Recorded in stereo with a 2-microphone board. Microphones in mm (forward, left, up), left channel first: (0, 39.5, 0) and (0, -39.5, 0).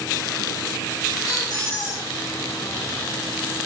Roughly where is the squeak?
Left.